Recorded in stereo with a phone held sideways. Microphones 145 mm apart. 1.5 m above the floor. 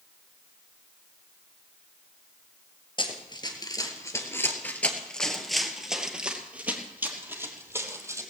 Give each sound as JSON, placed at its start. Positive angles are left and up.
{"t": 3.0, "sound": "running footsteps", "side_deg": 35, "distance_m": 1.7}